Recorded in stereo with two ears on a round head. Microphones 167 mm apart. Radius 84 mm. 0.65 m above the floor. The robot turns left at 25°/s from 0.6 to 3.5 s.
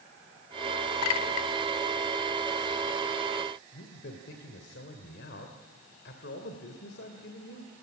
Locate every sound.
1.0 s a clink: 85° left, 1.2 m; by 1.5 s 80° left, 1.2 m
3.7 s a man speaking: 65° left (ahead or behind), 2 m